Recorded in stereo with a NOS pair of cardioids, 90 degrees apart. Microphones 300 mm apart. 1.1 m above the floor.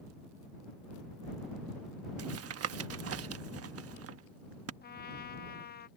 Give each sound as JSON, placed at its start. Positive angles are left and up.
{"t": 2.2, "sound": "tapping", "azimuth_deg": -50}
{"t": 4.8, "sound": "a trumpet", "azimuth_deg": 35}